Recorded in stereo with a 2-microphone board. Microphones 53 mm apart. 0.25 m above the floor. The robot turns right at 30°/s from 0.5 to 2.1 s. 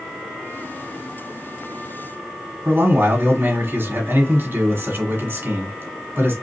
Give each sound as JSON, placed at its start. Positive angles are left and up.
{"t": 2.6, "sound": "a man speaking", "side_deg": -50, "distance_m": 1.7}